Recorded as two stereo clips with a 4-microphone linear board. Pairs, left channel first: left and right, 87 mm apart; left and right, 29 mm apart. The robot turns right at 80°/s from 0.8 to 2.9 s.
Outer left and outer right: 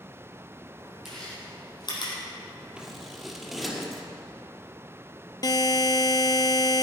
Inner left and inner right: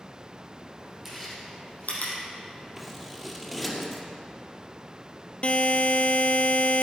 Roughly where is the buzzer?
Left.